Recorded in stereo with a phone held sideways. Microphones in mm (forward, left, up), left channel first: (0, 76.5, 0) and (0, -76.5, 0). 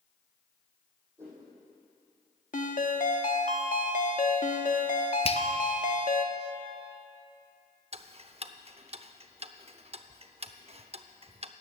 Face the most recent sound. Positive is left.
turn(degrees=-45)  # may be behind; listen again after turning